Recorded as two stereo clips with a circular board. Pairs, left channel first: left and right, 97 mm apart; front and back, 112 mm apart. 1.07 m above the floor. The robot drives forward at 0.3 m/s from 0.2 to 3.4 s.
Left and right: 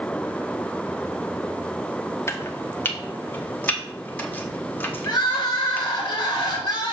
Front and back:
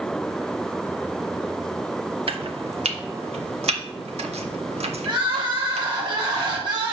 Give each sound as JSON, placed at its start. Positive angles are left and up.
{"t": 2.3, "sound": "chopping", "azimuth_deg": 150, "distance_m": 0.7}
{"t": 5.0, "sound": "crying", "azimuth_deg": 130, "distance_m": 1.7}